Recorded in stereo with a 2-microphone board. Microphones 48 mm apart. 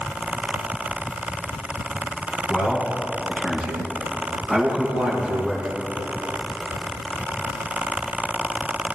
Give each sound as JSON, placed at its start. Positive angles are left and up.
{"t": 2.5, "sound": "a man speaking", "side_deg": 30, "distance_m": 4.0}